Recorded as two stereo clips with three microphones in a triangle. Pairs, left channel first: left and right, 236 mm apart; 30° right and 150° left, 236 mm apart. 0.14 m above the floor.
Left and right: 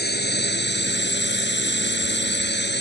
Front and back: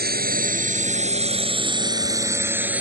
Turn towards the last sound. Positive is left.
turn(degrees=70)